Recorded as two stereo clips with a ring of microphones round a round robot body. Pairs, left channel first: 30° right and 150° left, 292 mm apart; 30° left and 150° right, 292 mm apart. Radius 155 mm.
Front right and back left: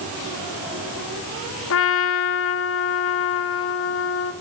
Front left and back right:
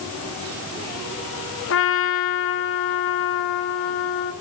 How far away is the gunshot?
I don't hear a gunshot.